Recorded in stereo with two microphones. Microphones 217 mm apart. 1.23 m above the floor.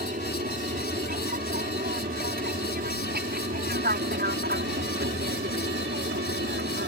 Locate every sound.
0.0 s an aircraft: 40° right (ahead or behind); by 6.9 s 50° right (ahead or behind)